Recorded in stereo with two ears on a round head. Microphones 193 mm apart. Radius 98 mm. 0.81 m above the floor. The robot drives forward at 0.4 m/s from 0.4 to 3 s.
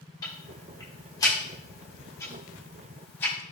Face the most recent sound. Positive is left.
turn(degrees=10)  # may be behind; listen again after turning